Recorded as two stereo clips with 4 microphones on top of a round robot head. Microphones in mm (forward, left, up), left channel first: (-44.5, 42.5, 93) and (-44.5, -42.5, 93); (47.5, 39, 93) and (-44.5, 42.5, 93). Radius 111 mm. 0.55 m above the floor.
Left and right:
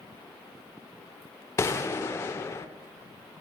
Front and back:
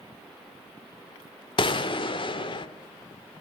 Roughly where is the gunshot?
Ahead left.